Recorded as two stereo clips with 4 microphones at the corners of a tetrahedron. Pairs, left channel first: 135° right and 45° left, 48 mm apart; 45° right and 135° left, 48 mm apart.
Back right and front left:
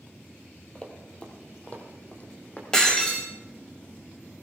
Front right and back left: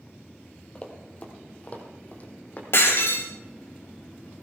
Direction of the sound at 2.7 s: 60° right.